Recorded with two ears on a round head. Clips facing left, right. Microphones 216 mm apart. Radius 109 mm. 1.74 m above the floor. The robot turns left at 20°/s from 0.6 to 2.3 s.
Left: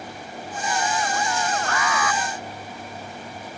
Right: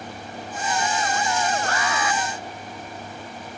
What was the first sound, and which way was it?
An alarm, 30° right (ahead or behind).